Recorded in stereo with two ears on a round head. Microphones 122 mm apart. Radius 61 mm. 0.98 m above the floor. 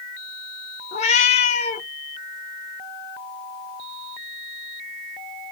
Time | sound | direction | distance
0.9 | a cat meowing | 50° left (ahead or behind) | 0.7 m